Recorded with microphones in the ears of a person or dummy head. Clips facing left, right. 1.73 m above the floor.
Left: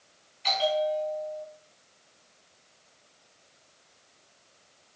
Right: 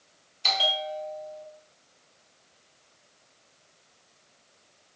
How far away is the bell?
About 5 m.